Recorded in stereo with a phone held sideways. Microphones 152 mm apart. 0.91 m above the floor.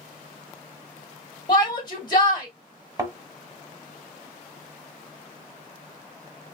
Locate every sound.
1.5 s a shout: 30° left (ahead or behind), 2 m
3.0 s a thud: 25° right (ahead or behind), 1.3 m